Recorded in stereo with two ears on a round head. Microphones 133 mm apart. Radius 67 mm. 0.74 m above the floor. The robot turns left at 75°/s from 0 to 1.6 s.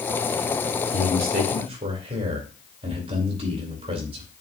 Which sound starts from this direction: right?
A man speaking, at 0.9 s.